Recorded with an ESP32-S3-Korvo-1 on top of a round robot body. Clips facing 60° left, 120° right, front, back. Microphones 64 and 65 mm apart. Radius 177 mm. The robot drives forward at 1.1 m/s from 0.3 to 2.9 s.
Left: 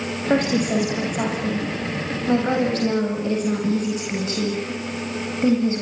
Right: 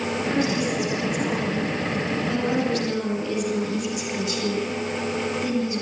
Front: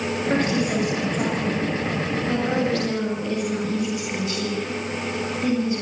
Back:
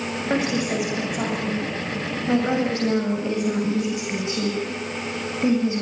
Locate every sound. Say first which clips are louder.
0.3 s a woman speaking: left 6 dB, front 1 dB; 95° left, 8 m; by 5.8 s 110° left, 8.5 m